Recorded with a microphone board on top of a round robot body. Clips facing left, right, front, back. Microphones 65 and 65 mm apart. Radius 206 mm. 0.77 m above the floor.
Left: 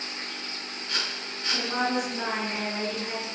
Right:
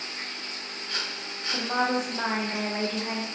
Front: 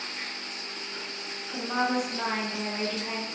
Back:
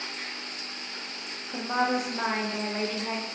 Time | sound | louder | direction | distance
1.5 | a woman speaking | right 1 dB, back 1 dB | 125° right | 0.7 m